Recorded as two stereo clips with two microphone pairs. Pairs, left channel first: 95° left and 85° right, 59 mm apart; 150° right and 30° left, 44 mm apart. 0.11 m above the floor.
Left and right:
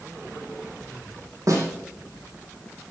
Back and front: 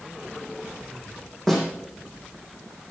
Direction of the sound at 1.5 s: 70° right.